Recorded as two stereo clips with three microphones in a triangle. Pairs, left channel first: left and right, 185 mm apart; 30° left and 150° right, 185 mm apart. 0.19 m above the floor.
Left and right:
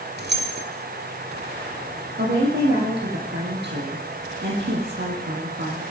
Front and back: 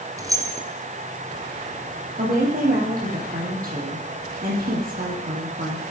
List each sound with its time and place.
0.2 s keys jangling: 80° right, 2 m
2.2 s a woman speaking: 110° right, 5.5 m